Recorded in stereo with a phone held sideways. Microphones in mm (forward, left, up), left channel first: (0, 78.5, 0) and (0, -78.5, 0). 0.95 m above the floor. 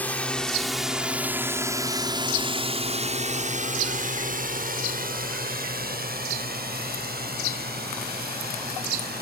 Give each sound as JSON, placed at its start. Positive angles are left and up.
{"t": 0.0, "sound": "a drone", "side_deg": 10}